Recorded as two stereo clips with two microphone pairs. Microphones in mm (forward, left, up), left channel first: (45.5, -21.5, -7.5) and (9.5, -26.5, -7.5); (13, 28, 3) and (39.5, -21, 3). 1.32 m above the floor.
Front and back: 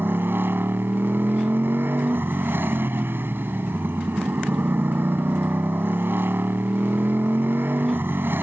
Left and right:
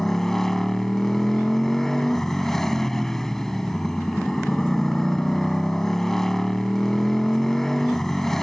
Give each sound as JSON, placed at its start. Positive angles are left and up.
{"t": 0.0, "sound": "a motorcycle", "azimuth_deg": -160}